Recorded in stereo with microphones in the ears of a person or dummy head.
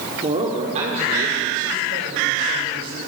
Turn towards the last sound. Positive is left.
turn(degrees=-55)  # may be behind; listen again after turning